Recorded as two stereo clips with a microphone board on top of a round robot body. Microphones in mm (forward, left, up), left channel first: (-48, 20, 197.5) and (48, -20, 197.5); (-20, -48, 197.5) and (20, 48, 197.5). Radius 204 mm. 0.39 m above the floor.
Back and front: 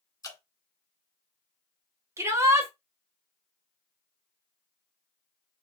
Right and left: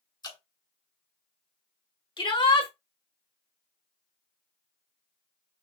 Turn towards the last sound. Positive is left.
turn(degrees=-85)